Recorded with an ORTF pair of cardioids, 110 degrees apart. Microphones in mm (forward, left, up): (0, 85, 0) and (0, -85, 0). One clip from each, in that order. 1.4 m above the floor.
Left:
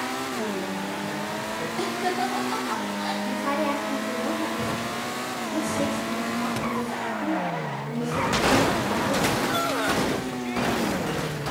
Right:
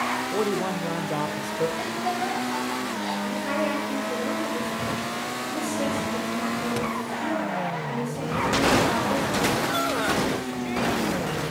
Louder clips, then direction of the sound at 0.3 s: Right 4 dB; 50° right.